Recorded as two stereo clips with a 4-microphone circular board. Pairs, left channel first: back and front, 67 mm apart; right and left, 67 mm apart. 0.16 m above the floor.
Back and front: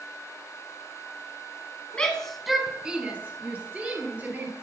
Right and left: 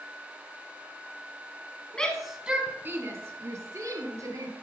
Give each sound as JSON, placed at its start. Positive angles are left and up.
{"t": 1.9, "sound": "a shout", "azimuth_deg": -140, "distance_m": 1.1}